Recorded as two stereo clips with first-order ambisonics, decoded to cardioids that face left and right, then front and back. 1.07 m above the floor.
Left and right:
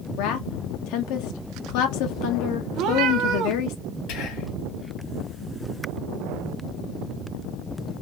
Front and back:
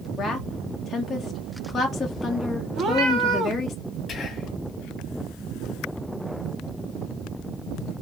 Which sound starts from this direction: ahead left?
Whispering, at 4.1 s.